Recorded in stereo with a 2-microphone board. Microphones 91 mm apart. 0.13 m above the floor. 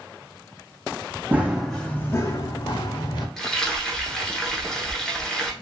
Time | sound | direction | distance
1.3 | running footsteps | 20° right (ahead or behind) | 0.6 m
3.4 | frying | 5° left (ahead or behind) | 1.0 m